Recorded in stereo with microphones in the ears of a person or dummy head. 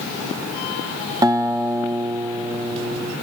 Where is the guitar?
20° right (ahead or behind), 1.0 m.